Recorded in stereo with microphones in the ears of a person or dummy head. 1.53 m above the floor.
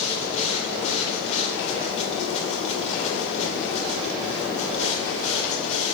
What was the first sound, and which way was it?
A machine running, 35° left (ahead or behind).